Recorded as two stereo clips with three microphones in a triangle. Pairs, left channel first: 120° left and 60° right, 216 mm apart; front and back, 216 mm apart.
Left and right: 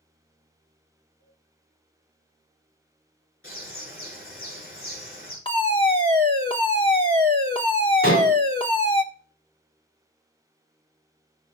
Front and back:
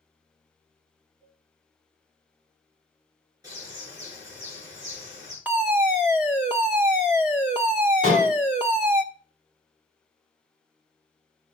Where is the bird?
105° left, 7.5 m.